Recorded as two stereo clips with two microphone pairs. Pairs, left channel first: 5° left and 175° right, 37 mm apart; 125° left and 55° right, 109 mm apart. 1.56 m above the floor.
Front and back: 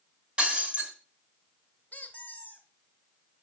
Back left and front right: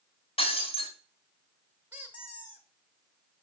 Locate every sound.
0.4 s breaking glass: 135° left, 3 m
1.9 s a squeak: 10° left, 1.5 m